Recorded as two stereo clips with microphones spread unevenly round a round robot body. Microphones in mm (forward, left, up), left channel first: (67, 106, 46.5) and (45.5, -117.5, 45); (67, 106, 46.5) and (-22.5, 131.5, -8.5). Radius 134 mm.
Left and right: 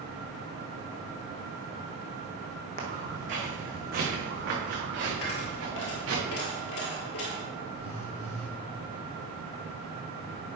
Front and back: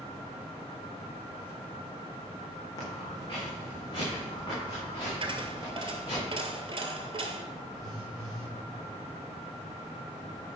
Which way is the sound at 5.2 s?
115° left.